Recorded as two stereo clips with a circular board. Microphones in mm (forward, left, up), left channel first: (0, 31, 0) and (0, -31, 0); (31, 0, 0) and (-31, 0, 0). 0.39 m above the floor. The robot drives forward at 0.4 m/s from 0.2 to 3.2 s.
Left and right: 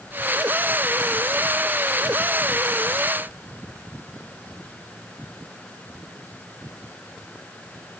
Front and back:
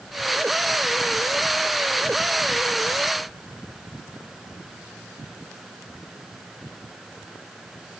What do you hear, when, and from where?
Only background noise.